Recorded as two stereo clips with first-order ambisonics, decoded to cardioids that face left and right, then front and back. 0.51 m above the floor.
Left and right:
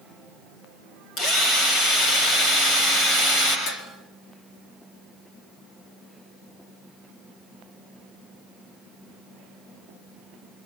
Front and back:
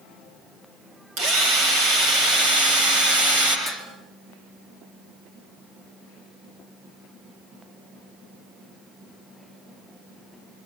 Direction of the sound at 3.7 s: 110° left.